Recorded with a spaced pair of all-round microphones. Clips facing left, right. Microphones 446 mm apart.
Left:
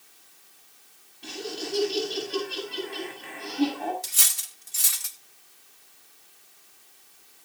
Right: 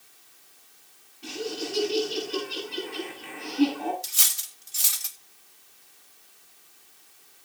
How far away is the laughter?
About 8.5 m.